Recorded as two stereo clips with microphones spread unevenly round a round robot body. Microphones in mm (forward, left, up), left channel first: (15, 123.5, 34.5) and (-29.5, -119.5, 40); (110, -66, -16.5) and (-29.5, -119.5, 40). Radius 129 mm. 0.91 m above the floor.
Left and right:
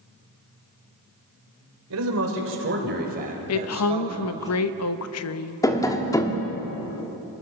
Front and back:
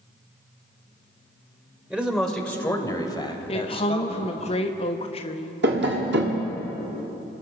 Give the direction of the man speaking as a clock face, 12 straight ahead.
3 o'clock.